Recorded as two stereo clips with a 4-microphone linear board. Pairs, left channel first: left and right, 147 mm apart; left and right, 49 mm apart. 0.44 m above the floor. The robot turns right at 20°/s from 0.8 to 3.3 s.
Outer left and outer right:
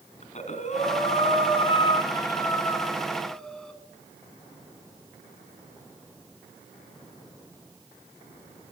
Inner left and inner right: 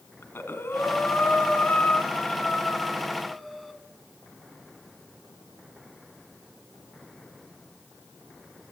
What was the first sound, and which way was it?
Breathing, 125° left.